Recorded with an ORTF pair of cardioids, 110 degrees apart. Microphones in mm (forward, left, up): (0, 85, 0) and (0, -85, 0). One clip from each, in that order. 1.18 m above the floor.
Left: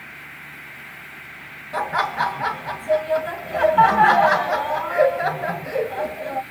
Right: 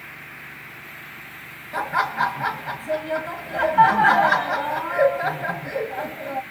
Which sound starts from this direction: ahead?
Laughter, at 1.7 s.